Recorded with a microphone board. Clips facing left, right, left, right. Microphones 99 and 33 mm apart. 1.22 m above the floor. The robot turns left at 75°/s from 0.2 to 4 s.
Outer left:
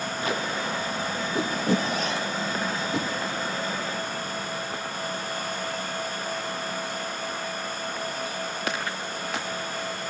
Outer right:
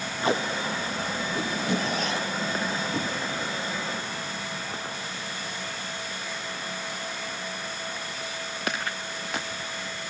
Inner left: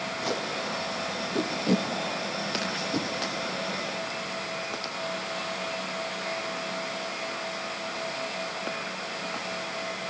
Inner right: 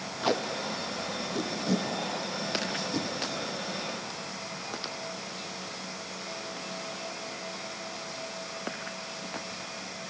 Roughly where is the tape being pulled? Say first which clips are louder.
Outer right 4 dB, inner right 4 dB; right.